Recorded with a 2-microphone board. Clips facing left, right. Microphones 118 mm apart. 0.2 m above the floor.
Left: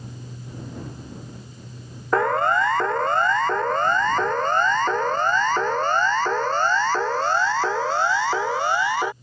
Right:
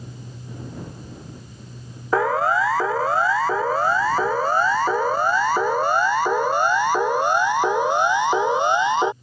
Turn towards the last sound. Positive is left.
turn(degrees=-20)  # may be behind; listen again after turning